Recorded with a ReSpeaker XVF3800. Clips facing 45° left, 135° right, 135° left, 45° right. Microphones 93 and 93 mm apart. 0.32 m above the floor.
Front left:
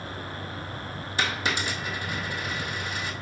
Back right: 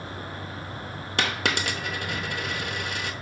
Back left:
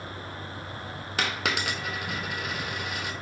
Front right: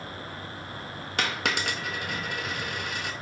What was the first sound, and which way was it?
A dropped coin, 140° right.